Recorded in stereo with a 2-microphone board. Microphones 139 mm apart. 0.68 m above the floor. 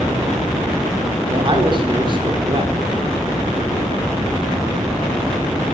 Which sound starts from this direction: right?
A man speaking, at 1.3 s.